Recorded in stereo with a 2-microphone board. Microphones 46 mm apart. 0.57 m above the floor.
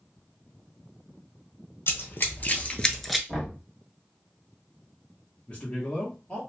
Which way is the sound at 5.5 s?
25° left (ahead or behind).